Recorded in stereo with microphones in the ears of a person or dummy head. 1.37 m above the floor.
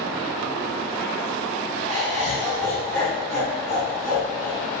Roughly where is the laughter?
Centre.